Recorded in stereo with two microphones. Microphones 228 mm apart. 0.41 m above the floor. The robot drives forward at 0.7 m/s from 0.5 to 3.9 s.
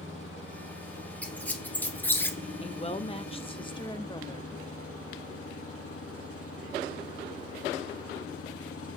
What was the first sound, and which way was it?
An engine running, 60° left (ahead or behind).